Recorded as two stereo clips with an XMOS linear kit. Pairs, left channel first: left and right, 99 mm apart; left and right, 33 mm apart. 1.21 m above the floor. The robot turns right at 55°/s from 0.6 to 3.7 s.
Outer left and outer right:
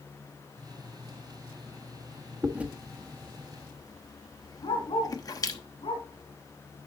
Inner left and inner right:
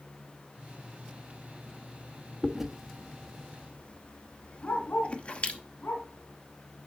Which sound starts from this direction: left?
A dog barking, at 4.6 s.